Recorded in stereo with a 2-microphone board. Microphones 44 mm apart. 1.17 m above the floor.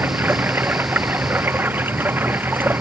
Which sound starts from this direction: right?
Running water, at 0.0 s.